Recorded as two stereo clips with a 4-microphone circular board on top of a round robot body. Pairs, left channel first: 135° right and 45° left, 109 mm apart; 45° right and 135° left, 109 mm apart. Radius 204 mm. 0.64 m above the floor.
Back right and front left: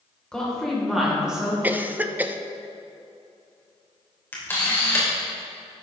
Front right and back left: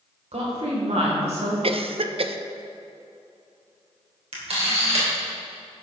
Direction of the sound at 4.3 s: 155° left.